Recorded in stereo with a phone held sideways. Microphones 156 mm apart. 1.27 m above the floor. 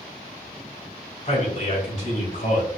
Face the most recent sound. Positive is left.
turn(degrees=65)  # may be behind; listen again after turning